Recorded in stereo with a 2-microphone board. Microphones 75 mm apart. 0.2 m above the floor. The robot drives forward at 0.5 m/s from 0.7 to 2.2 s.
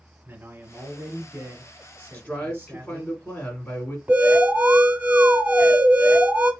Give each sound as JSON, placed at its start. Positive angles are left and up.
{"t": 0.2, "sound": "a man speaking", "side_deg": -35, "distance_m": 1.2}
{"t": 2.1, "sound": "a man speaking", "side_deg": 25, "distance_m": 1.4}
{"t": 4.1, "sound": "an alarm", "side_deg": -20, "distance_m": 2.5}